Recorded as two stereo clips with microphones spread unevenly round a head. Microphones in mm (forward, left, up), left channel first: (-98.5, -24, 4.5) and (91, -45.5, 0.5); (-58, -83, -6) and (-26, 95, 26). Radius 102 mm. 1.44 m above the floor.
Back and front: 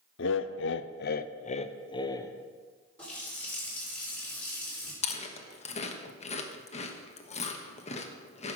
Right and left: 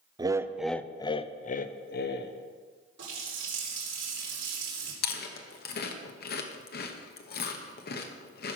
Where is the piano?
No piano in this recording.